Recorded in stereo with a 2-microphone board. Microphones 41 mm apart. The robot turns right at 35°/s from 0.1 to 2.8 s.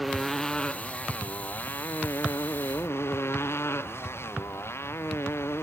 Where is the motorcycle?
Straight ahead; by 5.6 s 95° left.